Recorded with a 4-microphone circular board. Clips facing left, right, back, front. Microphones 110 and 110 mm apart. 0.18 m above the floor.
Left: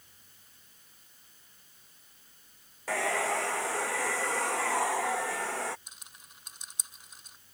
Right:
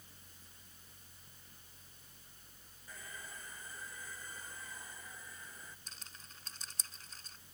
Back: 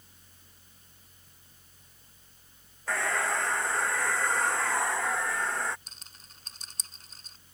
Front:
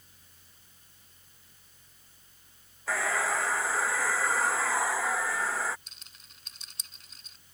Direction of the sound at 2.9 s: 90° left.